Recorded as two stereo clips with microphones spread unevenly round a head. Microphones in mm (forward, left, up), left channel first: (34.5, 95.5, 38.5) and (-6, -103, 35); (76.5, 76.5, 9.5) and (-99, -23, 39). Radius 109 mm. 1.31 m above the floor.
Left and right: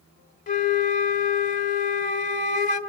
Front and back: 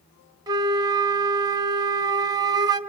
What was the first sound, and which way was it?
A flute, 135° left.